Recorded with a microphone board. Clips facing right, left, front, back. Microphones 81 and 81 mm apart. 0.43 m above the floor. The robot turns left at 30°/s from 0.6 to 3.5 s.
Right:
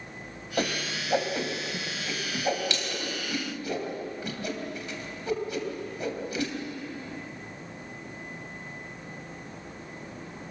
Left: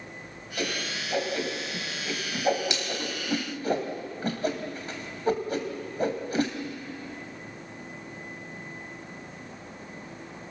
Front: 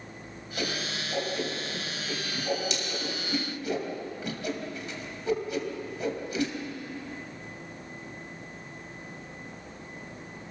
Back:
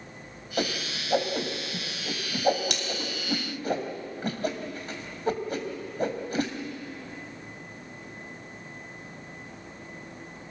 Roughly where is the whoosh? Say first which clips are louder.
Right 2 dB, back 3 dB; behind right.